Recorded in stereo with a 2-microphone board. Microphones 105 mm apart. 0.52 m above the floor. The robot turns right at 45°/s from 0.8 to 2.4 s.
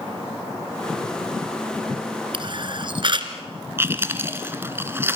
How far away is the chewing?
About 1.9 m.